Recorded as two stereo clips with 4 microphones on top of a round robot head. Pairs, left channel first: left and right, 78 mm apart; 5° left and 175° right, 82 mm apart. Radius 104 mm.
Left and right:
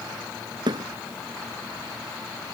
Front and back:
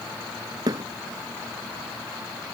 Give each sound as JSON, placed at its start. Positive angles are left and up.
{"t": 0.7, "sound": "a thud", "azimuth_deg": -130}